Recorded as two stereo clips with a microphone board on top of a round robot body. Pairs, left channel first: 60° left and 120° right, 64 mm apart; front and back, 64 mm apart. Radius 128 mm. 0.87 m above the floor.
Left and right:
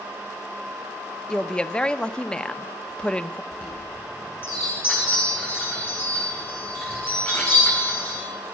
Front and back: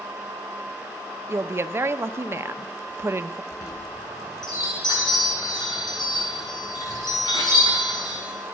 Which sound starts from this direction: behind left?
A woman speaking, at 1.3 s.